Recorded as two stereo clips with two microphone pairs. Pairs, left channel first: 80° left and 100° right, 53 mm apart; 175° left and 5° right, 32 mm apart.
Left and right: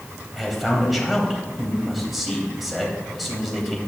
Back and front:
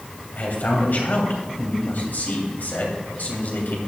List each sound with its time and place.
0.4 s a man speaking: 175° left, 3.5 m